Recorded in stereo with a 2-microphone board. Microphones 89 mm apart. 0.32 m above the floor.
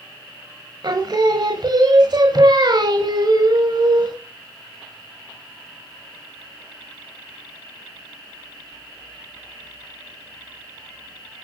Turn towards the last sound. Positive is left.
turn(degrees=-50)  # may be behind; listen again after turning